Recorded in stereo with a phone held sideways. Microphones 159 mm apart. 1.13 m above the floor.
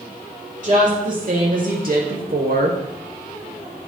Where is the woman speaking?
50° right (ahead or behind), 3.5 m; by 2.8 s 65° right (ahead or behind), 1.6 m.